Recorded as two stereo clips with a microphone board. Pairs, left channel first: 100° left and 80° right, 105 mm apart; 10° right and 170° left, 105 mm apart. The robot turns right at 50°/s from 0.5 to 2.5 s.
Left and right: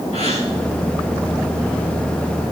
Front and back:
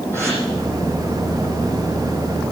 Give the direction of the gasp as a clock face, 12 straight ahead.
9 o'clock.